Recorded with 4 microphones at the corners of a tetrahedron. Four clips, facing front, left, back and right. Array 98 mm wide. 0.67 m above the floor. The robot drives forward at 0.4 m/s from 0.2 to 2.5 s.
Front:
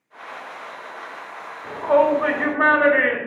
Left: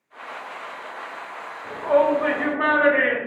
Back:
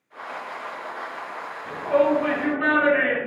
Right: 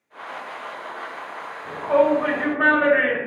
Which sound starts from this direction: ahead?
A shout, at 1.6 s.